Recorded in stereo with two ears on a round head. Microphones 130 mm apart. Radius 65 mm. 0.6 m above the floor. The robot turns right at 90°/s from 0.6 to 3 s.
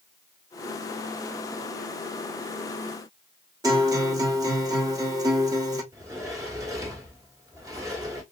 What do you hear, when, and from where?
3.6 s a guitar: 25° right (ahead or behind), 0.9 m
5.9 s a sliding door: 20° right (ahead or behind), 0.9 m